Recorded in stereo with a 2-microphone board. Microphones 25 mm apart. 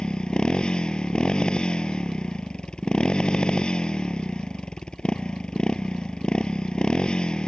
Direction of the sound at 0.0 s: 35° left (ahead or behind).